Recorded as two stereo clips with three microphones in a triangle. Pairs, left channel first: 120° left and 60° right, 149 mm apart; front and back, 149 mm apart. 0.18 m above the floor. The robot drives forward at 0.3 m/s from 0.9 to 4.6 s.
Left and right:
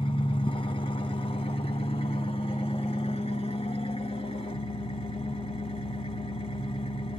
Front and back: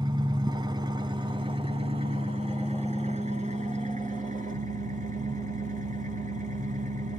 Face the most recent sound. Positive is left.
turn(degrees=165)